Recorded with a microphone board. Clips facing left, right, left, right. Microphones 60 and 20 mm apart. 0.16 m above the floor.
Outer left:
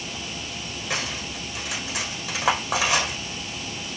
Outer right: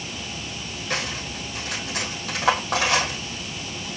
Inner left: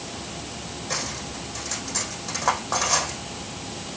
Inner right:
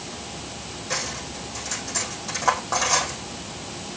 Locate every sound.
0.9 s cutlery clinking: 5° left (ahead or behind), 4.5 m